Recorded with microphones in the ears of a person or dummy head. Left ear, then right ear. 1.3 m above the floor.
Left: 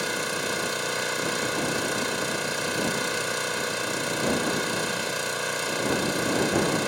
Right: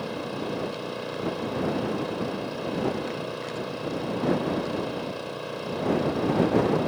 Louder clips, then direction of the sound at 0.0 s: Left 4 dB; 55° left (ahead or behind).